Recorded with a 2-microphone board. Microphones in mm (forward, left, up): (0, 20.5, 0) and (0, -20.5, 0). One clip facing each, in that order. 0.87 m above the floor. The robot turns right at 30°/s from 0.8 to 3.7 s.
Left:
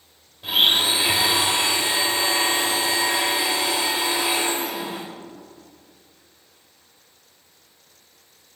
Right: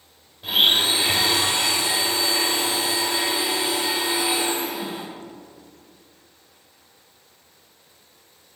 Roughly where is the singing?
I don't hear singing.